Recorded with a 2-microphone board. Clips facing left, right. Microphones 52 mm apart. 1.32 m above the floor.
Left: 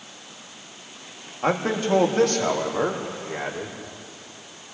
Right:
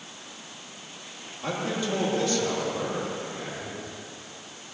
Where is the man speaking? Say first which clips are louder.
Left 6 dB; 45° left (ahead or behind), 2.5 m; by 3.7 s 70° left (ahead or behind), 4 m.